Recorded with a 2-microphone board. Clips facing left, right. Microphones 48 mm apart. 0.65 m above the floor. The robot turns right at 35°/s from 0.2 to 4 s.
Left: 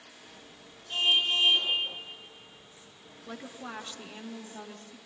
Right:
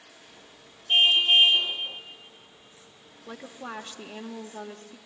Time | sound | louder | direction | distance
0.9 | a car horn | right 6 dB | 85° right | 8.5 m
3.3 | a woman speaking | right 2 dB | 15° right (ahead or behind) | 1.4 m